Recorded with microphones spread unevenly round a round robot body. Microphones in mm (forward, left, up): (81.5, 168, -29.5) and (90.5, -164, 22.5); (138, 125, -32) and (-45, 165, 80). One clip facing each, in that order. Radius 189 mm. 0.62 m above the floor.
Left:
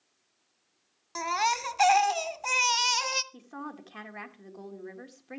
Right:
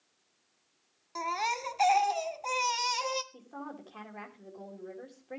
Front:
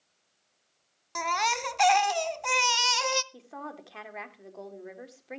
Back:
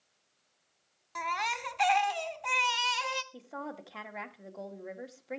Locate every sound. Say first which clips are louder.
1.1 s a baby crying: left 3 dB, front 6 dB; 30° left, 0.6 m
3.3 s a woman speaking: left 2 dB, back 1 dB; 60° left, 1.9 m